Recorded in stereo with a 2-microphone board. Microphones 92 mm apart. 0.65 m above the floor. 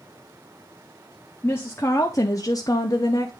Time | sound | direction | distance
1.4 | a woman speaking | 25° left (ahead or behind) | 0.9 m